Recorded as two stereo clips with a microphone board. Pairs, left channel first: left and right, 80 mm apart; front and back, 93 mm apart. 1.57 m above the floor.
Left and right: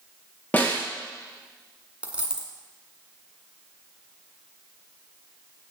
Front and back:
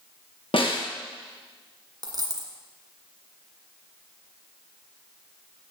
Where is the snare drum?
20° left, 1.7 m.